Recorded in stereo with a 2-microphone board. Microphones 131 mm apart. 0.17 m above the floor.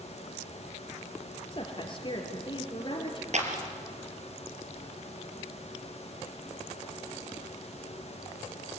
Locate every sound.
1.5 s a woman speaking: 40° left (ahead or behind), 3.5 m
3.3 s a clap: 60° right (ahead or behind), 3.5 m